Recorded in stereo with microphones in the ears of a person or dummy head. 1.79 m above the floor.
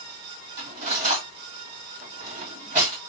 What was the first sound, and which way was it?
Cutlery clinking, 40° right (ahead or behind).